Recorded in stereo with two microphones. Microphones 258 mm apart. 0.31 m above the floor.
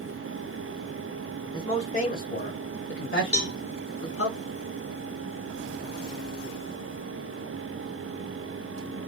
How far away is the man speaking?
About 1.0 m.